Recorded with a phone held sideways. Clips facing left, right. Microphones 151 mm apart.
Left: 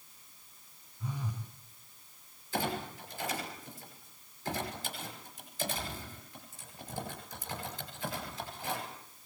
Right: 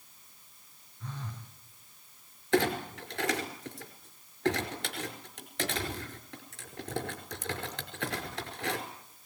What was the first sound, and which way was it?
A phone buzzing, 10° left (ahead or behind).